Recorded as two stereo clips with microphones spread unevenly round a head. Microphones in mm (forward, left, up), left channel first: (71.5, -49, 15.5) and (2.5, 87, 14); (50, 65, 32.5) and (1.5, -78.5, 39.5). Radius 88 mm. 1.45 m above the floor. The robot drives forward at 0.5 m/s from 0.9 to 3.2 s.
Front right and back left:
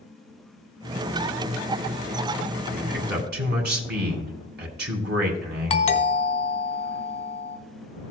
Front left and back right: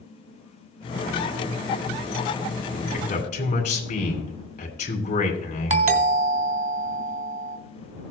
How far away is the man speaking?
About 2 m.